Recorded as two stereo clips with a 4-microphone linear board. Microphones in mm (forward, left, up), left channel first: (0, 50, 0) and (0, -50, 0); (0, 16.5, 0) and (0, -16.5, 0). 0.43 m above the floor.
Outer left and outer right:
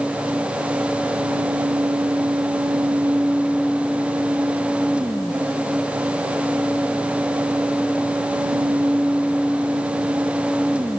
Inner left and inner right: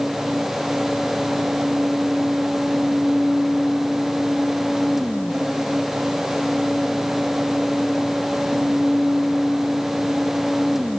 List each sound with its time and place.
Only background noise.